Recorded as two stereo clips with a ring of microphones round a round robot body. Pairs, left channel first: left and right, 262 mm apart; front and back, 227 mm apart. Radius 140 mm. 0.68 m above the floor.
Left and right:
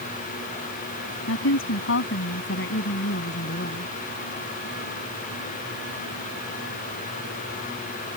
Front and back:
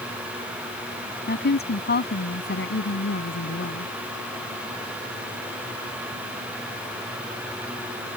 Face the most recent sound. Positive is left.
turn(degrees=35)